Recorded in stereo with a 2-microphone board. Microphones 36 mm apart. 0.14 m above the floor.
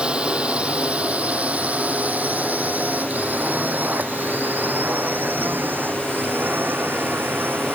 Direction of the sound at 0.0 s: 25° right (ahead or behind).